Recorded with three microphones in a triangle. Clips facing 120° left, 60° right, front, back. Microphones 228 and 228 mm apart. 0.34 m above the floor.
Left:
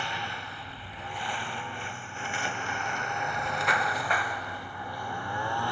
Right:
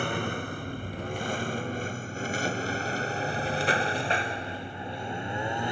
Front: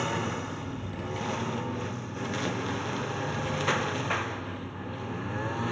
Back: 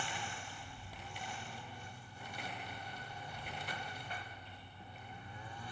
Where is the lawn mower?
20° right; by 5.7 s 10° left.